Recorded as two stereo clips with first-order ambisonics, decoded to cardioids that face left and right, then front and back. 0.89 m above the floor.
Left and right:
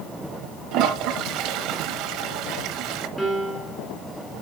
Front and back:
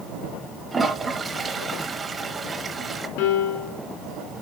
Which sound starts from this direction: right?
A toilet flushing, at 0.7 s.